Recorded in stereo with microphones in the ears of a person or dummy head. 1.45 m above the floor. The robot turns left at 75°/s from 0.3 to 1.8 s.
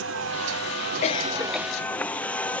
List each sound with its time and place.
0.0 s a vehicle: 75° right; by 2.6 s 170° left
1.0 s a cough: 40° left; by 1.7 s 10° right